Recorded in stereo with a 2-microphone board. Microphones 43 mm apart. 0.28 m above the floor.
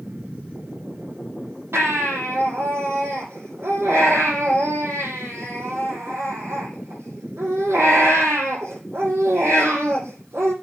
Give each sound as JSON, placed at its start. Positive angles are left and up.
{"t": 1.7, "sound": "a baby crying", "side_deg": -75, "distance_m": 9.0}